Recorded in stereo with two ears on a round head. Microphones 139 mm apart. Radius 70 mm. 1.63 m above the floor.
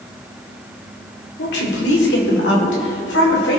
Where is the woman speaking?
75° left (ahead or behind), 4 m; by 3.6 s 85° left, 5.5 m.